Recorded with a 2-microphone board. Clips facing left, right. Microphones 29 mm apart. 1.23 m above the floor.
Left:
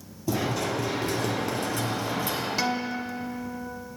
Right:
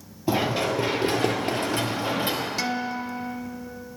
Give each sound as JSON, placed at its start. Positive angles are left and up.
{"t": 0.3, "sound": "running footsteps", "side_deg": -40, "distance_m": 1.9}
{"t": 2.6, "sound": "a guitar", "side_deg": 5, "distance_m": 0.8}